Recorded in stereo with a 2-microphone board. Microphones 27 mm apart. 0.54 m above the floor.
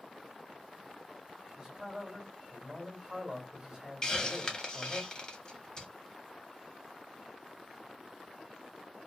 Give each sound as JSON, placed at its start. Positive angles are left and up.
{"t": 1.6, "sound": "a man speaking", "side_deg": -20, "distance_m": 1.1}
{"t": 4.0, "sound": "a hiss", "side_deg": 30, "distance_m": 0.7}